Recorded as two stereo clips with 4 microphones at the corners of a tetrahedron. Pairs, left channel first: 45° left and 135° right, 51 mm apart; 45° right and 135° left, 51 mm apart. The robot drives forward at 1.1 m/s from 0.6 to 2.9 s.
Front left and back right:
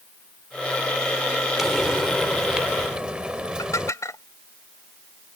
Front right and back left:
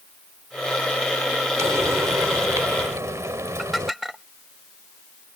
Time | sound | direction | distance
1.6 | frying | 140° left | ?
3.6 | dishes clattering | 45° left | ?